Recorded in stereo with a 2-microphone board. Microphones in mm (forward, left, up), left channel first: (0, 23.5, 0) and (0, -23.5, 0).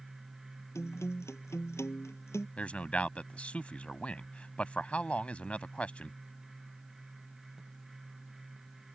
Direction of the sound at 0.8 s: 75° left (ahead or behind).